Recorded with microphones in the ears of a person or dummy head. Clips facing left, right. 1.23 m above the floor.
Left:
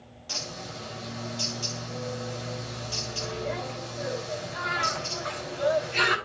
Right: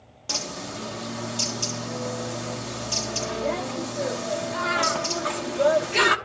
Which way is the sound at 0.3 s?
65° right (ahead or behind).